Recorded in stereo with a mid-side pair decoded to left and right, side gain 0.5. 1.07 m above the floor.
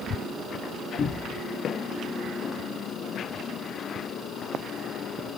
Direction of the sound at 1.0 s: 50° left.